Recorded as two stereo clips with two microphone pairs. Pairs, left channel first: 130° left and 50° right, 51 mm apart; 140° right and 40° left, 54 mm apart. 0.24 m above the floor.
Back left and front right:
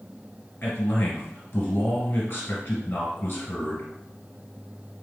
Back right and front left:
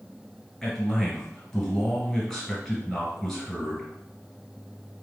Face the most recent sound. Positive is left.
turn(degrees=135)